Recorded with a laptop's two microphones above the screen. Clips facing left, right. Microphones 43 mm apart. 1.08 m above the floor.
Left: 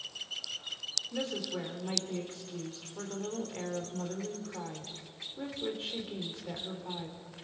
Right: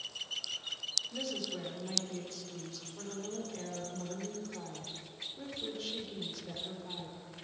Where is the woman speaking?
30° left (ahead or behind), 4 m.